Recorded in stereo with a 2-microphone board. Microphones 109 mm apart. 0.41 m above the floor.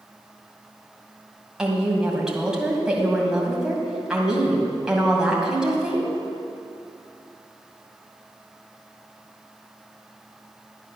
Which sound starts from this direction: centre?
A woman speaking, at 1.6 s.